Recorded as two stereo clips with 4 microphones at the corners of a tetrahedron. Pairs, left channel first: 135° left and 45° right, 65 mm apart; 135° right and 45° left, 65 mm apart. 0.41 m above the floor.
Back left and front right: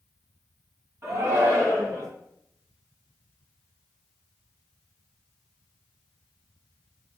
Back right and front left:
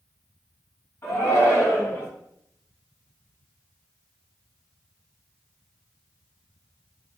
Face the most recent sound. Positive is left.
turn(degrees=-85)